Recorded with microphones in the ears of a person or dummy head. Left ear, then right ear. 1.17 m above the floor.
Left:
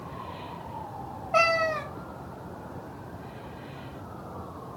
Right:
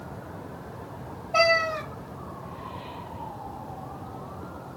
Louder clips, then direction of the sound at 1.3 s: Right 1 dB; 60° left (ahead or behind).